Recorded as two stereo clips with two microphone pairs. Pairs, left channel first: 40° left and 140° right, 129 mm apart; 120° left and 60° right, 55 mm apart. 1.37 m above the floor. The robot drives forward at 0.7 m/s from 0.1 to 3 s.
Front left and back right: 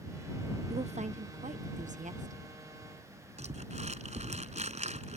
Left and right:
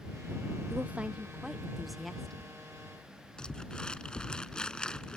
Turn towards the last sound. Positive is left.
turn(degrees=-170)